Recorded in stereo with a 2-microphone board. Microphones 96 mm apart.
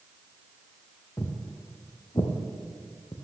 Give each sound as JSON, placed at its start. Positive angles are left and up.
{"t": 1.2, "sound": "footsteps", "side_deg": 35, "distance_m": 2.0}